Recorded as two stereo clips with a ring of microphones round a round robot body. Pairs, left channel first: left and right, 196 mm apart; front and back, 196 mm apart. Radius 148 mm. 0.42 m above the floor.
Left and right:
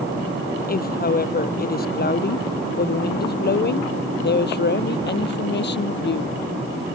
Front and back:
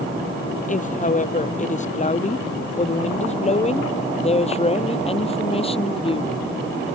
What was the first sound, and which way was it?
A woman speaking, 50° left.